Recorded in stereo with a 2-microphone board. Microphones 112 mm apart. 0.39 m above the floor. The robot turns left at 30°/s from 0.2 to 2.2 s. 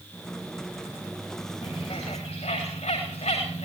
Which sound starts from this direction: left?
A bird, at 1.6 s.